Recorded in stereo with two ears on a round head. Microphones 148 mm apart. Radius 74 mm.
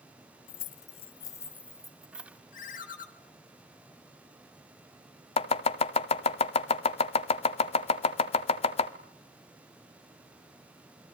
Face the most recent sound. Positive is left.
turn(degrees=35)  # may be behind; listen again after turning